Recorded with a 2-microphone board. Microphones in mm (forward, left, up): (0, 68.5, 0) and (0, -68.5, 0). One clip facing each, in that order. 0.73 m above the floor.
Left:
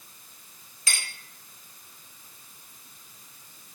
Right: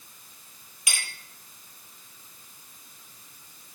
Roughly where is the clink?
Centre.